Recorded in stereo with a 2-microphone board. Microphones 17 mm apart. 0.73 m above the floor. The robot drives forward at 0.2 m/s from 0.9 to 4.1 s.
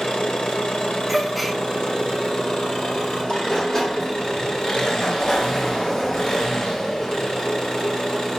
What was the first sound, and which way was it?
An engine running, 70° left (ahead or behind).